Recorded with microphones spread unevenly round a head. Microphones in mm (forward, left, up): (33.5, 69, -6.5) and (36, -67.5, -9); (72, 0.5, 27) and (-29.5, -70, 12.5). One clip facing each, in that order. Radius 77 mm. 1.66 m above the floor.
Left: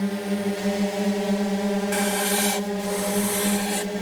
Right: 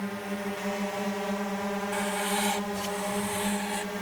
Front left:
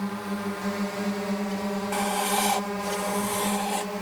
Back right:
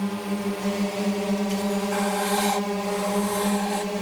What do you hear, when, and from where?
0.0 s a drone: 145° left
1.9 s writing: 115° left